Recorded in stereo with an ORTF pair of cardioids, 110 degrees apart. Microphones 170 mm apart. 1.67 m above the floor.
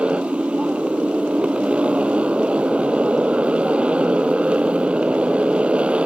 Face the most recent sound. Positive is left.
turn(degrees=-5)